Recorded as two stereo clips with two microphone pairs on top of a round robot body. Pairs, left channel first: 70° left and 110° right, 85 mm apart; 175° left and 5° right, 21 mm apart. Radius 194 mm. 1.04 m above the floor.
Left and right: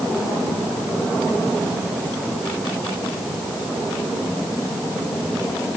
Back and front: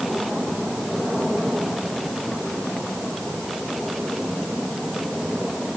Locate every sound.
Only background noise.